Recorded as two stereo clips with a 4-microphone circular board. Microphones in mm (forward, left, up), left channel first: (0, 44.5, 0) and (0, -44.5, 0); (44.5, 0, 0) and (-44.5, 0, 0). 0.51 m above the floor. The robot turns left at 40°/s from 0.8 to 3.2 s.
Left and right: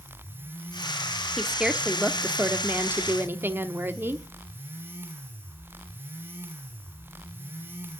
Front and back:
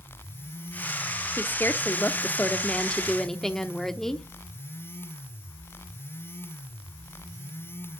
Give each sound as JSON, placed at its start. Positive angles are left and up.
{"t": 1.4, "sound": "a woman speaking", "azimuth_deg": -10, "distance_m": 1.0}